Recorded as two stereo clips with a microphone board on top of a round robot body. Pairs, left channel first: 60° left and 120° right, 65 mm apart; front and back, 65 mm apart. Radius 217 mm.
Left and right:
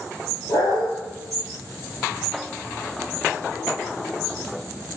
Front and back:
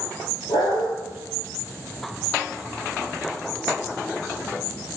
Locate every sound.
0.5 s a dog barking: 20° left, 8 m